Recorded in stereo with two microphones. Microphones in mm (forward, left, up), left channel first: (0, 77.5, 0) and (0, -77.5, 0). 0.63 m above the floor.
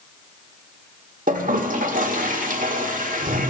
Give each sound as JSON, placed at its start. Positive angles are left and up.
{"t": 1.3, "sound": "a toilet flushing", "side_deg": -60, "distance_m": 1.6}